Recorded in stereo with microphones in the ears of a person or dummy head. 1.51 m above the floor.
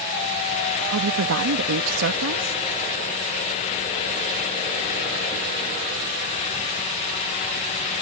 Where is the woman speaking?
80° right.